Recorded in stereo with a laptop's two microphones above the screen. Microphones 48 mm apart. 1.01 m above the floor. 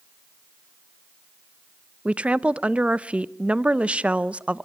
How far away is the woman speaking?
About 0.6 m.